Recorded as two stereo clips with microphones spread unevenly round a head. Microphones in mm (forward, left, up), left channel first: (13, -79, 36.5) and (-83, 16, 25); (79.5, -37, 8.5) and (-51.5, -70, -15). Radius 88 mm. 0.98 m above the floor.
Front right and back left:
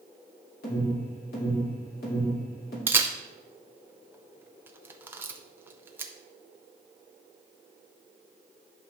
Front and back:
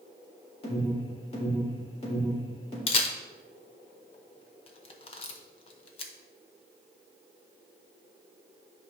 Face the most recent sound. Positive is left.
turn(degrees=70)